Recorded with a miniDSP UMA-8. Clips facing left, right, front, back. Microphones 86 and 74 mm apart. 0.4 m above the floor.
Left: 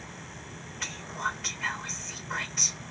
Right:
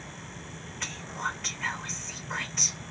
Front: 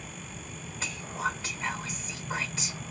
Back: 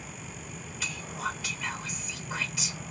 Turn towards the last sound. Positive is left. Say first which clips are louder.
# left 1 dB, front 2 dB
turn(degrees=5)